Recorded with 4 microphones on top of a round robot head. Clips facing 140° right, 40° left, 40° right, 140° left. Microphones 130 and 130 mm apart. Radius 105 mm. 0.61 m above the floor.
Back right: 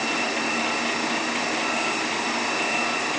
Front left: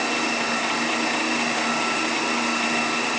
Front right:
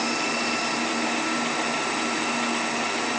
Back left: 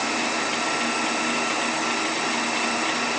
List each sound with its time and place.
Only background noise.